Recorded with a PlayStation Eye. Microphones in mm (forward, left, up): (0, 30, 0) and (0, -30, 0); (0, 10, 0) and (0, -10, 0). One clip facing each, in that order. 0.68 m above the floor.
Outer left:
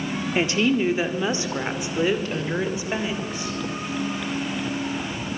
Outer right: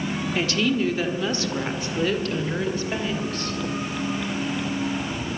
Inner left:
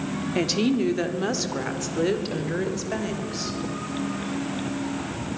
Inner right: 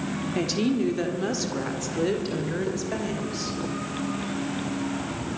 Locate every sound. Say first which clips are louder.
0.3 s a woman speaking: outer left 2 dB, inner left 2 dB; 20° left (ahead or behind), 1.6 m; by 3.6 s 15° left (ahead or behind), 3.5 m